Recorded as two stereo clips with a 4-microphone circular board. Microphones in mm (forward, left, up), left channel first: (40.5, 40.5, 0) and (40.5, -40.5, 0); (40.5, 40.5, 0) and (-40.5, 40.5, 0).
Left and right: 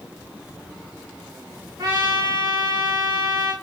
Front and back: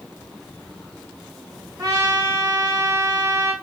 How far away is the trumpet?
About 1.8 m.